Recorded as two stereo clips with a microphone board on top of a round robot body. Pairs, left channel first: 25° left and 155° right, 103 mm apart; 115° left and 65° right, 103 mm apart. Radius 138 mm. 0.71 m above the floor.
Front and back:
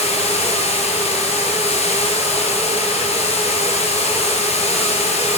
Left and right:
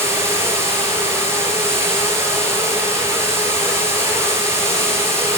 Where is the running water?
Straight ahead, 9.5 m.